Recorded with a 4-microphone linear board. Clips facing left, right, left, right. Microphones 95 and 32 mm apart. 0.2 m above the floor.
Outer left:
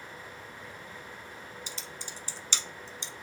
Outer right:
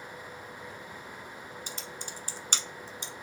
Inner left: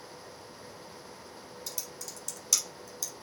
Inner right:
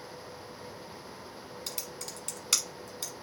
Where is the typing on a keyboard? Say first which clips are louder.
Outer right 2 dB, inner right 2 dB; 50° right (ahead or behind), 0.7 m.